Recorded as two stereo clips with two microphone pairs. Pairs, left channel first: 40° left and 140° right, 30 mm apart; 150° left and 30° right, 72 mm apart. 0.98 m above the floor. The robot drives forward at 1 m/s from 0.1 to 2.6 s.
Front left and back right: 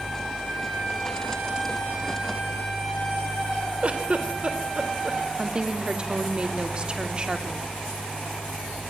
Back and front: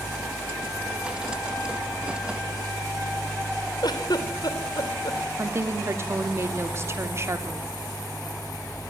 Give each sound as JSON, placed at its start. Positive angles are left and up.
{"t": 3.8, "sound": "a giggle", "azimuth_deg": 170, "distance_m": 3.0}
{"t": 5.4, "sound": "a woman speaking", "azimuth_deg": -80, "distance_m": 3.0}